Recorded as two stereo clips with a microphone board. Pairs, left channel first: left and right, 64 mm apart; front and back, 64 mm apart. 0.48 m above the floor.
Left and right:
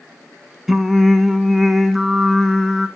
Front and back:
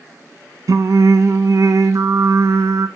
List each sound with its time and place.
0.7 s singing: 175° right, 0.6 m